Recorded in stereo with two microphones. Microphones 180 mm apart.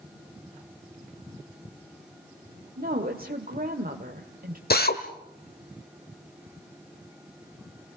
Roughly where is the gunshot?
No gunshot in this recording.